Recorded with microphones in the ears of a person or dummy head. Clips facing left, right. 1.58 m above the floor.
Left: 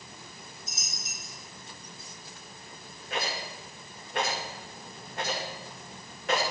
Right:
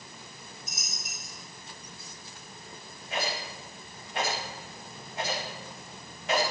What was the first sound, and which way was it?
A dropped coin, 25° left (ahead or behind).